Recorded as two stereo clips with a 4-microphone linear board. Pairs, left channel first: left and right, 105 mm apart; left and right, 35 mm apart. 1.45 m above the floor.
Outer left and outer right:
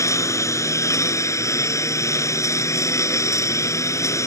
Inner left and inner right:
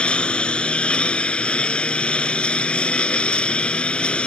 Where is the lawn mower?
30° left (ahead or behind).